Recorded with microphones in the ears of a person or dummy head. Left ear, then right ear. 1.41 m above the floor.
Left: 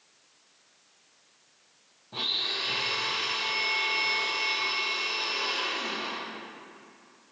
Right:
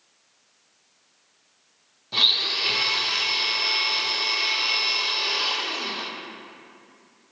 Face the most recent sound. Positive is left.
turn(degrees=-70)  # may be behind; listen again after turning